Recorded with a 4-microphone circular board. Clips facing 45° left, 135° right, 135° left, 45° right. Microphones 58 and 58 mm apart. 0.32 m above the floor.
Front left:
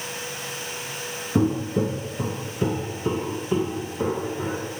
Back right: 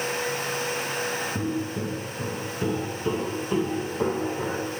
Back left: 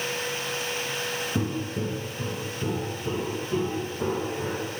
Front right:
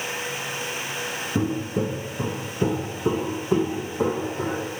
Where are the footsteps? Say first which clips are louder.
Front left 6 dB, front right 7 dB; 30° left, 0.7 m; by 4.7 s 45° right, 2 m.